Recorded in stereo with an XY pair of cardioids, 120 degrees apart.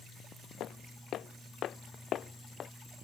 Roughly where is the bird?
No bird in this recording.